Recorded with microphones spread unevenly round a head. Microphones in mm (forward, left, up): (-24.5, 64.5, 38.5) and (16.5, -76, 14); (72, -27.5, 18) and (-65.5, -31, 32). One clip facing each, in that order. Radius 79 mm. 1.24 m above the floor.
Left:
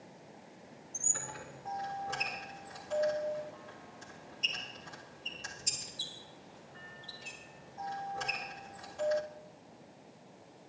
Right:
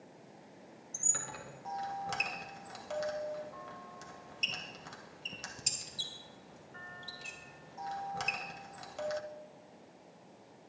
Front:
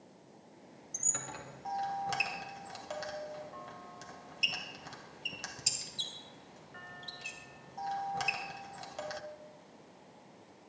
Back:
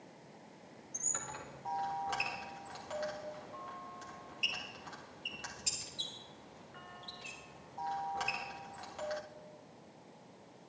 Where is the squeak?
45° right, 2 m.